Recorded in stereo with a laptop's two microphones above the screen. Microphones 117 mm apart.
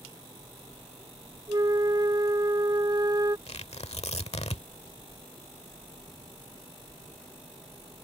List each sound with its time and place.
1.5 s a flute: 35° right (ahead or behind)
3.5 s tearing paper: 65° left (ahead or behind)